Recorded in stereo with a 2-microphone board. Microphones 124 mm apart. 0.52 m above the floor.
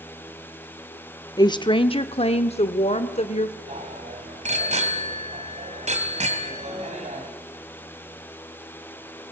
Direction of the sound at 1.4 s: 30° left (ahead or behind).